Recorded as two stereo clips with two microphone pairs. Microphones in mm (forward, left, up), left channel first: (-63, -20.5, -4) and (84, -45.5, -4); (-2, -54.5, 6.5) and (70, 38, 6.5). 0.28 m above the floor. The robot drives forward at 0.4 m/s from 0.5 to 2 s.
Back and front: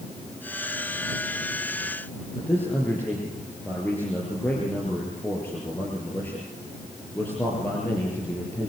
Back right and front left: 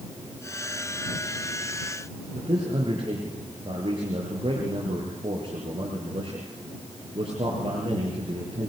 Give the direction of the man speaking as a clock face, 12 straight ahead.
9 o'clock.